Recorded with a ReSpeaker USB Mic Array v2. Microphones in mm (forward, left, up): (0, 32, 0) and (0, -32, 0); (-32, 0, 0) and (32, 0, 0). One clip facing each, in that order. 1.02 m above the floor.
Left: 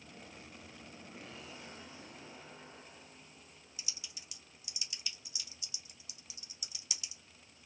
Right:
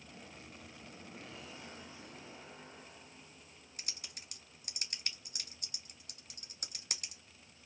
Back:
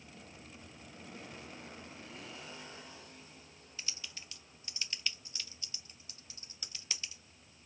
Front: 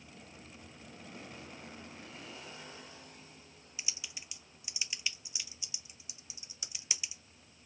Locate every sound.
3.8 s typing on a keyboard: 75° right, 0.6 m